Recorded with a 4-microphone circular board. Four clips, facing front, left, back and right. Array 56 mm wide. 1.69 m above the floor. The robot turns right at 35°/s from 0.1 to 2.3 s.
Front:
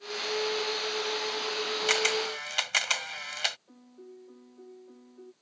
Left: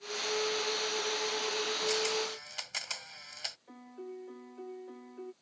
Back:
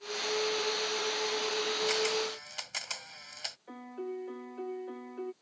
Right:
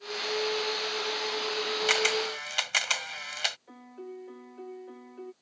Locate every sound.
1.9 s a camera shutter: 55° right; by 3.6 s 40° right
3.7 s a piano: 170° right